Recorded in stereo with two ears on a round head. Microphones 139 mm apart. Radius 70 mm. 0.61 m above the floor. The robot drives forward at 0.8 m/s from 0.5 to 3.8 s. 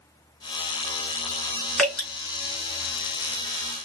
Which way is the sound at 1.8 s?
5° left (ahead or behind).